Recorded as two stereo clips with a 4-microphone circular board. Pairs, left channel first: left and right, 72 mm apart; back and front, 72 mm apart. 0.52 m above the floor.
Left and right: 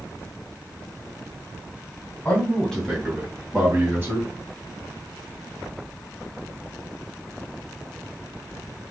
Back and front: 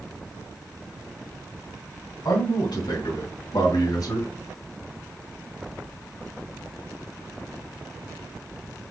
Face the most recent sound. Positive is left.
turn(degrees=-150)